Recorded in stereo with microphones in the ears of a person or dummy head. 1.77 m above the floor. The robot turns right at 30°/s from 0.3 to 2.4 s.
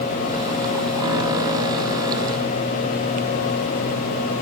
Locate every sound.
Only background noise.